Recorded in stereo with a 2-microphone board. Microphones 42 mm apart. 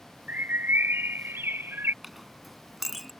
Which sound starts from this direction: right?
A bird, at 0.3 s.